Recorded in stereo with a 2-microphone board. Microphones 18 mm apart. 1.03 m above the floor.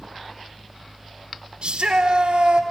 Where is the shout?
75° right (ahead or behind), 4 m.